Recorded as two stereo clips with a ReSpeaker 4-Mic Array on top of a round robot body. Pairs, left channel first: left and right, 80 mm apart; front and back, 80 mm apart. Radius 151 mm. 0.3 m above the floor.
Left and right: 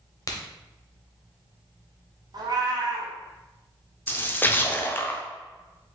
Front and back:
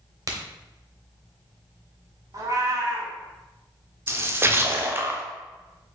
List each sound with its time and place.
0.3 s a crack: 135° left, 0.9 m
2.3 s a cat meowing: 130° right, 0.6 m
4.1 s a splash: 140° left, 0.8 m